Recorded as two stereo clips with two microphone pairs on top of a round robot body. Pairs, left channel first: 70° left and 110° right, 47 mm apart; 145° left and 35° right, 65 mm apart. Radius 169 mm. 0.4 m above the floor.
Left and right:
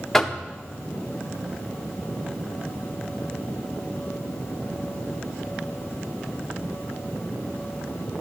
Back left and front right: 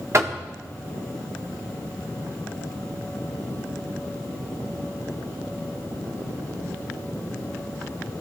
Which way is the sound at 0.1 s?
15° right.